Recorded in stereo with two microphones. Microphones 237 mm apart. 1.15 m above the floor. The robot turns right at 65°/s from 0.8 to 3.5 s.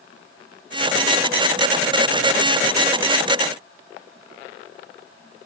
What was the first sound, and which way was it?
Only background noise.